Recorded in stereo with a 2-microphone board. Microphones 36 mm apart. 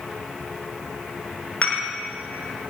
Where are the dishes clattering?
45° left (ahead or behind), 1.4 m.